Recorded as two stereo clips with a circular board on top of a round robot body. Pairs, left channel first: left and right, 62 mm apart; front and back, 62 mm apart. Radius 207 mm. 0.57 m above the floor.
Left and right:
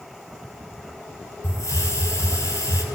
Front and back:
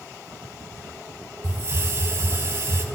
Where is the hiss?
130° left, 4 m.